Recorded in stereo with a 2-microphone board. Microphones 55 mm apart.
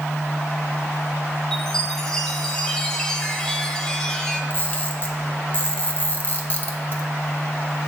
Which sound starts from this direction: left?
A camera shutter, at 4.5 s.